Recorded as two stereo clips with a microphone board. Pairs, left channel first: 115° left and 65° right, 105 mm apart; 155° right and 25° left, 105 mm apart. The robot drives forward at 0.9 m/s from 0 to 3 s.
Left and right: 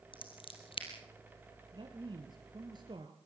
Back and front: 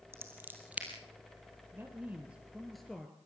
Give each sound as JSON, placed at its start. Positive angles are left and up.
{"t": 0.1, "sound": "scissors", "azimuth_deg": 85, "distance_m": 3.5}
{"t": 1.7, "sound": "a man speaking", "azimuth_deg": -40, "distance_m": 2.0}